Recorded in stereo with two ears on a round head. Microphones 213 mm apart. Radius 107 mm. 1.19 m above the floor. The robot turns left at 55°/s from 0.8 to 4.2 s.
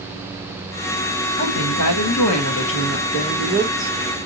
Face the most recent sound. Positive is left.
turn(degrees=-25)